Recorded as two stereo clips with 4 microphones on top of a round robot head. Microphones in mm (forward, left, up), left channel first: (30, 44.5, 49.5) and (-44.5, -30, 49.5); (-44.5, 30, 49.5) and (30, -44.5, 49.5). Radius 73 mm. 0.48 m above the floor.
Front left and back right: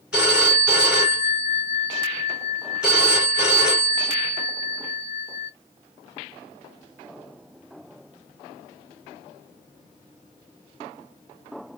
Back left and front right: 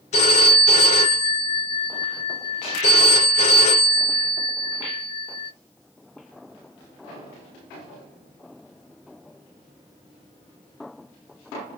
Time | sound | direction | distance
0.1 | a phone ringing | 145° left | 4 m